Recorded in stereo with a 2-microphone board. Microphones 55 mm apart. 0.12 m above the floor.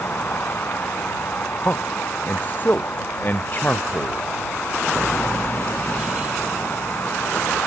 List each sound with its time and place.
0.0 s a vehicle: 40° left (ahead or behind)
1.6 s a man speaking: 35° left (ahead or behind)